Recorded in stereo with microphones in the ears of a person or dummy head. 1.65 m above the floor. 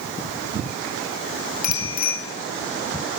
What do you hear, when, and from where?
1.6 s a bicycle bell: 45° left (ahead or behind), 5 m